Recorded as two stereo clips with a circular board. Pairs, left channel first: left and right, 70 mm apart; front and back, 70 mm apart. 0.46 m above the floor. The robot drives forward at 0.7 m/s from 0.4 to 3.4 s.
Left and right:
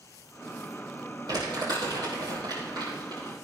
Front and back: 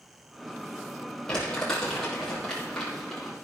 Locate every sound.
1.3 s crumpling: 75° right, 6 m; by 3.3 s 90° right, 6 m